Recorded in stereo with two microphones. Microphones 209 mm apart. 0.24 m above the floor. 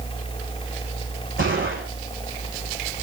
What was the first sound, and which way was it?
A gunshot, 60° right (ahead or behind).